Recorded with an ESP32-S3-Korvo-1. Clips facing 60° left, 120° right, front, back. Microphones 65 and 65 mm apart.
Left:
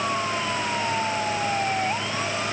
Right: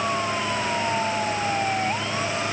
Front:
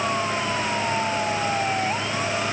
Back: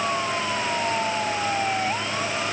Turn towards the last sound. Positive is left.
No sound to turn to.